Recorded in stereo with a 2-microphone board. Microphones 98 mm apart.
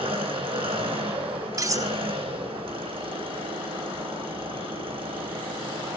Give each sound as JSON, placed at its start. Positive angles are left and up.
{"t": 0.0, "sound": "an engine running", "side_deg": -60, "distance_m": 3.5}
{"t": 1.6, "sound": "cutlery clinking", "side_deg": -35, "distance_m": 0.5}